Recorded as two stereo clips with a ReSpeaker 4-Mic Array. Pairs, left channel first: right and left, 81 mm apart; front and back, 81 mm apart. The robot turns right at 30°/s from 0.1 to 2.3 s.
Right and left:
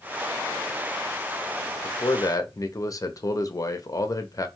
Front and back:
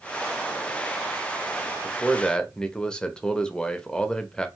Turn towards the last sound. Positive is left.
turn(degrees=-75)